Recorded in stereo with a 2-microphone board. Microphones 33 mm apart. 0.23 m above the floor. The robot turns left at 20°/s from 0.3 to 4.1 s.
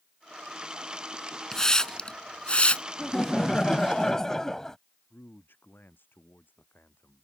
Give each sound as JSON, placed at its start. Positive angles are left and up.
{"t": 1.5, "sound": "a hiss", "side_deg": 15}
{"t": 3.0, "sound": "laughter", "side_deg": 15}
{"t": 5.1, "sound": "a man speaking", "side_deg": 75}